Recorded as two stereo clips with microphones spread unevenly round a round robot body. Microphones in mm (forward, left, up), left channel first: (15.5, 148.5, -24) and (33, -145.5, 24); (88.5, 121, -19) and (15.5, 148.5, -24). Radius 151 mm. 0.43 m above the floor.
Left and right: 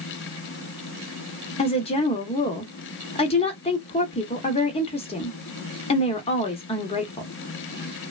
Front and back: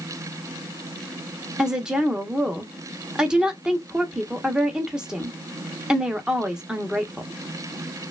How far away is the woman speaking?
About 0.8 m.